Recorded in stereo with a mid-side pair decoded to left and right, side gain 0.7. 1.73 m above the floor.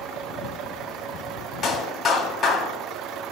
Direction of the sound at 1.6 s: 15° left.